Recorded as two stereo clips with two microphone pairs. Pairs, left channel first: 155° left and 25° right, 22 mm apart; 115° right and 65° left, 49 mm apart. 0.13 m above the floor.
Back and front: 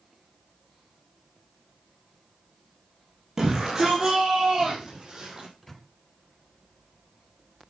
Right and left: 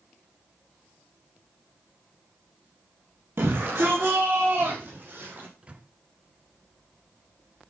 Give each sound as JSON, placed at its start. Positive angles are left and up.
{"t": 3.4, "sound": "a shout", "azimuth_deg": 40, "distance_m": 4.5}
{"t": 5.6, "sound": "a microwave", "azimuth_deg": 85, "distance_m": 1.5}